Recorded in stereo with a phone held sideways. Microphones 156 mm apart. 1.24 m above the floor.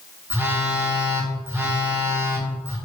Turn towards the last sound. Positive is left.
turn(degrees=-15)  # may be behind; listen again after turning